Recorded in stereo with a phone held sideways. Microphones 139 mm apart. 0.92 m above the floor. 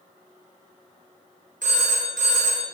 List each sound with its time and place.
1.6 s a phone ringing: 70° right (ahead or behind), 0.7 m